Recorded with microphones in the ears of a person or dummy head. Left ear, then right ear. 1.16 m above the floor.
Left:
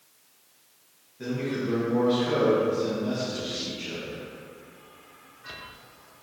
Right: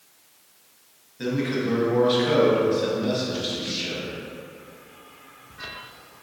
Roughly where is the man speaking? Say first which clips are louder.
Right 4 dB; right.